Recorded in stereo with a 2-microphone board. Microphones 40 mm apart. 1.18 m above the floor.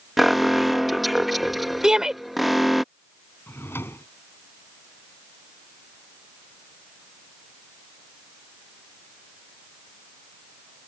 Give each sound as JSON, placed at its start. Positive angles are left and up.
{"t": 0.2, "sound": "an alarm", "side_deg": 0}
{"t": 1.8, "sound": "a shout", "side_deg": -15}
{"t": 3.5, "sound": "a drawer", "side_deg": 80}